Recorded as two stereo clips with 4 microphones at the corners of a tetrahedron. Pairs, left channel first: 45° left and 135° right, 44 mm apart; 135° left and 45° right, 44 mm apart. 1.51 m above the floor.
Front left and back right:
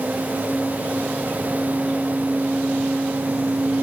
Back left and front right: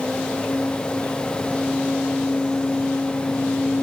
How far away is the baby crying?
No baby crying in this recording.